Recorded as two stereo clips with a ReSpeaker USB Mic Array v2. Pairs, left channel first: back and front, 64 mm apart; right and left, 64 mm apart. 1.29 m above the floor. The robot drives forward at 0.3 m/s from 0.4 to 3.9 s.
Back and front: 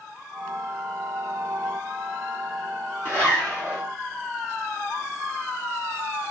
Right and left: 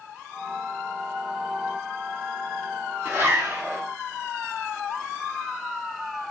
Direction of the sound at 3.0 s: 130° left.